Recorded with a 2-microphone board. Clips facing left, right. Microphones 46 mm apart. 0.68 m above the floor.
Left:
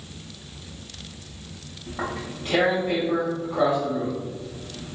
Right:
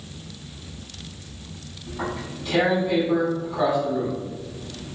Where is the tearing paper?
40° left (ahead or behind), 2.0 m.